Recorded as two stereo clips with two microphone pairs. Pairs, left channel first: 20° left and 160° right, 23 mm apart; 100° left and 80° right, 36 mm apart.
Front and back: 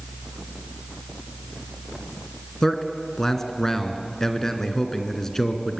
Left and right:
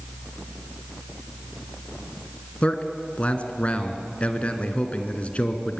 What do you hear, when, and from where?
2.6 s a man speaking: 80° left, 2 m